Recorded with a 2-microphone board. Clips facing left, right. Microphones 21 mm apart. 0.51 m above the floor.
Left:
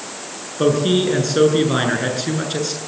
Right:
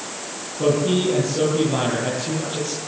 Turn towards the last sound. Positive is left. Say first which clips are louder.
# left 3 dB
turn(degrees=55)  # may be behind; listen again after turning